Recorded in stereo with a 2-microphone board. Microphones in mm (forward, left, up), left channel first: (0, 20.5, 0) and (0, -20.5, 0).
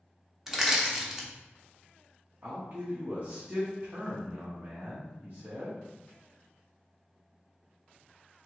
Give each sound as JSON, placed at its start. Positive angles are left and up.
{"t": 0.5, "sound": "crushing", "side_deg": -5, "distance_m": 0.9}
{"t": 2.4, "sound": "a man speaking", "side_deg": -50, "distance_m": 1.0}